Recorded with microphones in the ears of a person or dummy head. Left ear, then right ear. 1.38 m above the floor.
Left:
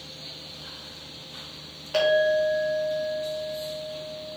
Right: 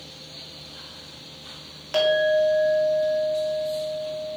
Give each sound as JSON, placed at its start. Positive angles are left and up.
{"t": 1.9, "sound": "a clink", "side_deg": -55, "distance_m": 2.5}